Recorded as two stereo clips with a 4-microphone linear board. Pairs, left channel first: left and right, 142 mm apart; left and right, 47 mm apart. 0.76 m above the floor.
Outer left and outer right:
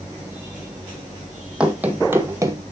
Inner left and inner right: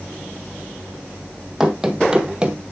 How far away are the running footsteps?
About 1.4 m.